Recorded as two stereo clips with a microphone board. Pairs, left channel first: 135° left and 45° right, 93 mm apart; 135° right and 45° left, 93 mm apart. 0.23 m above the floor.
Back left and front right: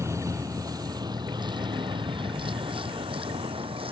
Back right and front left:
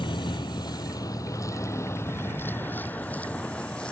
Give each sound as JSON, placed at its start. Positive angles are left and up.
{"t": 0.0, "sound": "a vehicle", "azimuth_deg": -105}